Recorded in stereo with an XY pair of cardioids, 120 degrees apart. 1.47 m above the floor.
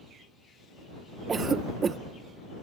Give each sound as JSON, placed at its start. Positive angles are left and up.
{"t": 1.3, "sound": "a cough", "azimuth_deg": -35}